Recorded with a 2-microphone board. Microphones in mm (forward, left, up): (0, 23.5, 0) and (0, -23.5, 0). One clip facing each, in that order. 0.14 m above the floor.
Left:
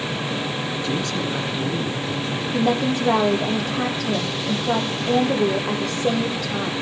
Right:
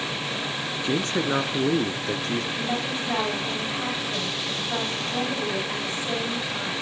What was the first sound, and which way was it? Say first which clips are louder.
A man speaking: right 3 dB; 25° right (ahead or behind).